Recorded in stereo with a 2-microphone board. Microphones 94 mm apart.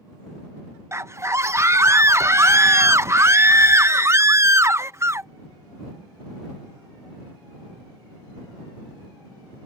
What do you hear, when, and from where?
0.9 s a scream: 30° right (ahead or behind)